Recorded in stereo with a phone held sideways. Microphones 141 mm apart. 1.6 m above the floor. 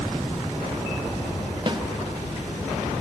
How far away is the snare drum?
About 1.1 m.